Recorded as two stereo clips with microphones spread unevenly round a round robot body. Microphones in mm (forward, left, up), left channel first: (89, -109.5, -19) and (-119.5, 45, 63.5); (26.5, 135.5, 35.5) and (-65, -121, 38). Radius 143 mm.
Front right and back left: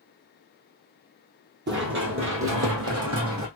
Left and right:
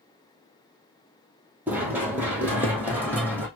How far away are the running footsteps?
About 1.2 m.